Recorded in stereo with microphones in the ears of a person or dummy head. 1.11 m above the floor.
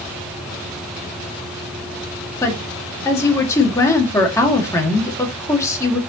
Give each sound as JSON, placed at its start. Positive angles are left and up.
{"t": 2.4, "sound": "a woman speaking", "side_deg": 15, "distance_m": 1.9}